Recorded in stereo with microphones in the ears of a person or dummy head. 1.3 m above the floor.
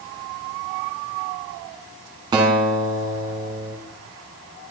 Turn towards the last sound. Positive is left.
turn(degrees=-25)  # may be behind; listen again after turning